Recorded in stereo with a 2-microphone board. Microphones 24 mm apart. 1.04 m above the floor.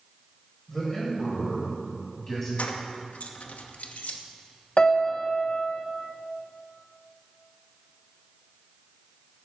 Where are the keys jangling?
80° left, 0.9 m.